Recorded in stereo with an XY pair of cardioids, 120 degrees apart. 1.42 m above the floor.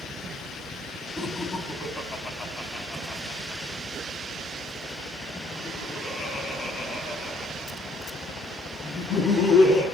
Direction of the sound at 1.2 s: 20° left.